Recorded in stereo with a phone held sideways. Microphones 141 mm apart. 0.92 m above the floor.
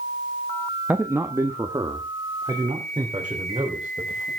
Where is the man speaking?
10° right (ahead or behind), 0.8 m; by 4.3 s 35° right (ahead or behind), 4 m.